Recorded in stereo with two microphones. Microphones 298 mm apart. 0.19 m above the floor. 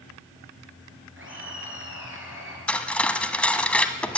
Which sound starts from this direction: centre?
Cutlery clinking, at 2.7 s.